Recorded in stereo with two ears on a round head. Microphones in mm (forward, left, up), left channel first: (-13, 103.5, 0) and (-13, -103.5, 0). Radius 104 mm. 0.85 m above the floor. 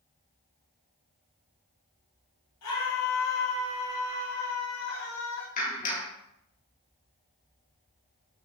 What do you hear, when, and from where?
2.6 s a scream: 80° left, 6 m; by 5.5 s 60° left (ahead or behind), 6.5 m
5.6 s a clap: 35° left (ahead or behind), 2.5 m